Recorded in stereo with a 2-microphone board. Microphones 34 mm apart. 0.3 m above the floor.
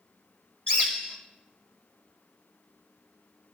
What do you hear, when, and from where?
0.7 s a bird: 30° left (ahead or behind), 1.3 m